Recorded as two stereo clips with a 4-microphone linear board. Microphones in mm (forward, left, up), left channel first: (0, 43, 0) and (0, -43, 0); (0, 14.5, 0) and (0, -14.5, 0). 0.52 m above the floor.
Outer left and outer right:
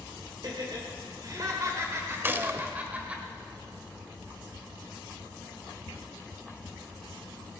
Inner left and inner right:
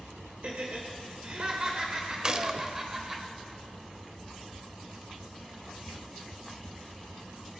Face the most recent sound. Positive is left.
turn(degrees=-25)  # may be behind; listen again after turning